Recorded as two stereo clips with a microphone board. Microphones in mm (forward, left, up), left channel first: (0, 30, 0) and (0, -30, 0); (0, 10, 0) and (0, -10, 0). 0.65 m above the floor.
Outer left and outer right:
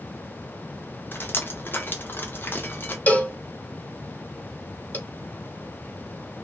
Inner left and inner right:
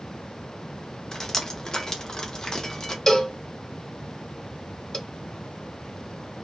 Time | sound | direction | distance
1.1 | dripping | 40° left (ahead or behind) | 0.6 m
3.1 | a cowbell | 30° left (ahead or behind) | 0.8 m